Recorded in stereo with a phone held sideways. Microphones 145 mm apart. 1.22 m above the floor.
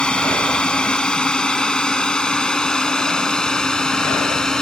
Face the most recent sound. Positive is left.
turn(degrees=5)  # may be behind; listen again after turning